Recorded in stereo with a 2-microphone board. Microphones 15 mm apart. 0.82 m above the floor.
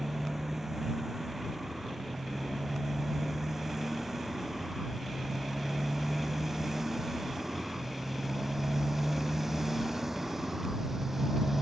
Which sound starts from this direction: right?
A motorcycle, at 0.0 s.